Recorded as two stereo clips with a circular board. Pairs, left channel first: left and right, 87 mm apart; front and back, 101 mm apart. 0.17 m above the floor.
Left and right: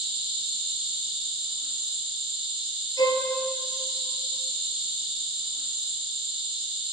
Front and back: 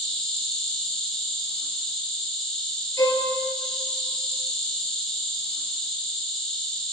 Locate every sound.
0.0 s an insect: 85° right, 3.5 m
3.0 s a violin: 55° left, 1.5 m